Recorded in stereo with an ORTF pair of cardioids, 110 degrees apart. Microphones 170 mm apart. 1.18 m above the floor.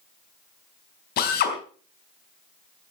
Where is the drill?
70° left, 3.5 m.